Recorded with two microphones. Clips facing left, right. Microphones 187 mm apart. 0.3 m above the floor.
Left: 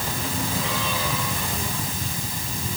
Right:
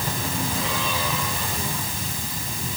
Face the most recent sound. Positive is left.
No sound to turn to.